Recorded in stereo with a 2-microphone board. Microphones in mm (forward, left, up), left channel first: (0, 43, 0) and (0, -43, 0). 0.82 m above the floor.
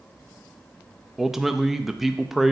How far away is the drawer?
No drawer in this recording.